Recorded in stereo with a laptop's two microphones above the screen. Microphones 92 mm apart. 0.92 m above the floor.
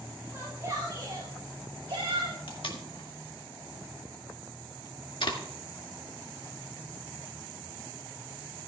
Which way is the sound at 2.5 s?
65° left (ahead or behind).